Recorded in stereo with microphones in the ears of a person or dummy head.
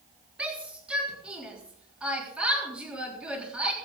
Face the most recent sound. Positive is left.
turn(degrees=-5)  # may be behind; listen again after turning